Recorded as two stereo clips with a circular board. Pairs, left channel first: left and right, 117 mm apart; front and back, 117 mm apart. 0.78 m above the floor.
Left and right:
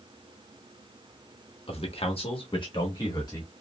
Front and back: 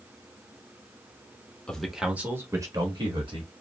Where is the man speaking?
80° left, 0.8 m; by 3.5 s 145° left, 1.3 m.